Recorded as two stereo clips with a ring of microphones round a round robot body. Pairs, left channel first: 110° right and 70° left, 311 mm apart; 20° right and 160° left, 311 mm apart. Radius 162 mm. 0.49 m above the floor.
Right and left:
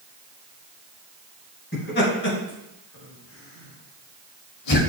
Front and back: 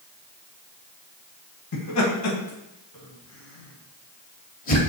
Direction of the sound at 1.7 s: 55° right.